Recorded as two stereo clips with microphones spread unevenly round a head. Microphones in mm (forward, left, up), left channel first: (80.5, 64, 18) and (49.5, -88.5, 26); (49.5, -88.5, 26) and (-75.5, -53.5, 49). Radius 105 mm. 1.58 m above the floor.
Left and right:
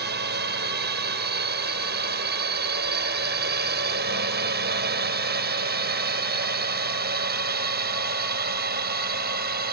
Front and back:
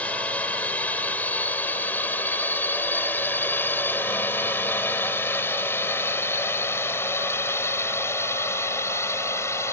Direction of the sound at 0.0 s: 95° right.